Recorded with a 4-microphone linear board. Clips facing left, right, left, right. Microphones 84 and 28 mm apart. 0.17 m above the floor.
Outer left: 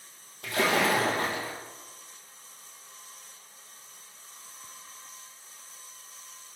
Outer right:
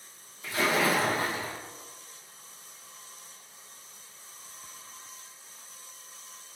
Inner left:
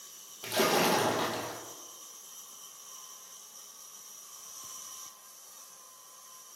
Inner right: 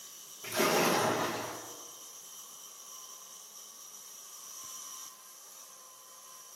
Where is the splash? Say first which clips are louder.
Outer left 1 dB, inner left 1 dB; 70° left (ahead or behind), 0.9 m.